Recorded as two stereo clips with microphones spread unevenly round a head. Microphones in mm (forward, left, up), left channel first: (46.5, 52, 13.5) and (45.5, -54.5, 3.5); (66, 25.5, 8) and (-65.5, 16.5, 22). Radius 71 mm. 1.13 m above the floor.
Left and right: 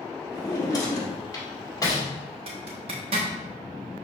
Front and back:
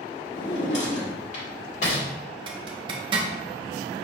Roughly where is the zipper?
Behind right.